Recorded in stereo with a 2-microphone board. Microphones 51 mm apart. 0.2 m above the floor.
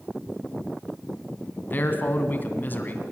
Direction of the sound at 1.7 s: 35° left (ahead or behind).